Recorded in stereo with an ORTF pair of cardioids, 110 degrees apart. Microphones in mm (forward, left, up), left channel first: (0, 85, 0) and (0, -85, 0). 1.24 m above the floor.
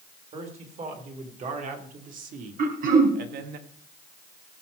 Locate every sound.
0.3 s a man speaking: 40° right, 4 m; by 3.6 s 75° right, 1.6 m
2.6 s throat clearing: 55° right, 4 m